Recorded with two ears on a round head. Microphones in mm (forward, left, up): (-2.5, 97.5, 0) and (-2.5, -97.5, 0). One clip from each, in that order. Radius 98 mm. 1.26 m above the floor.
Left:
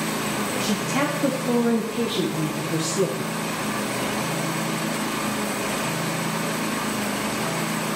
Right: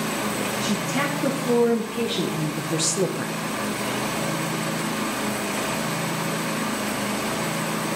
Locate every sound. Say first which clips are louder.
0.6 s a woman speaking: left 2 dB; 20° left (ahead or behind), 2 m; by 3.4 s 55° right (ahead or behind), 1.1 m